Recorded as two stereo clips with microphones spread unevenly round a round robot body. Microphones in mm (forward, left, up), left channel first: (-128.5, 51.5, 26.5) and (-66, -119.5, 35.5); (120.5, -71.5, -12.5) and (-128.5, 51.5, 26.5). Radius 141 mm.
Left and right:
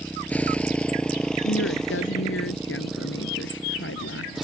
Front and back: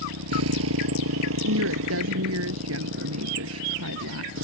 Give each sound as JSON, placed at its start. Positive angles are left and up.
{"t": 0.0, "sound": "a motorcycle", "azimuth_deg": -170}
{"t": 1.4, "sound": "a woman speaking", "azimuth_deg": 110}